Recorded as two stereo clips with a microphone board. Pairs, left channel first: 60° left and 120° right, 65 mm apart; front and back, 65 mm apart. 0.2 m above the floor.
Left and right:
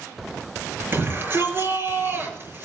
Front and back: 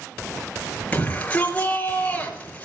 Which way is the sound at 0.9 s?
70° right.